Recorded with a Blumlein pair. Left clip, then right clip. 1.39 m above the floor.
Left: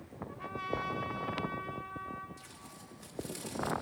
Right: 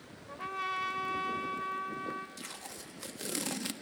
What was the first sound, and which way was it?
A trumpet, 70° right.